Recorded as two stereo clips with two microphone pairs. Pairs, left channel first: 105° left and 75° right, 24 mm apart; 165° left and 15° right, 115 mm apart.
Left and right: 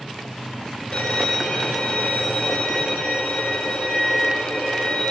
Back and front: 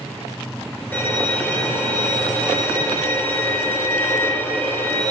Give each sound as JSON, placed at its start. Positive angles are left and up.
{"t": 0.9, "sound": "a violin", "azimuth_deg": 90, "distance_m": 1.0}